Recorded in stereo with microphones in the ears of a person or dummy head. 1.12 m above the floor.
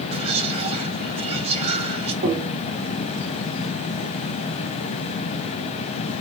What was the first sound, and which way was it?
Whispering, 30° right (ahead or behind).